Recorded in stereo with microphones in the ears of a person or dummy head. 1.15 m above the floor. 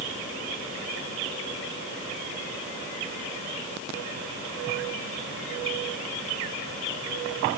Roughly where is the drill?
I don't hear a drill.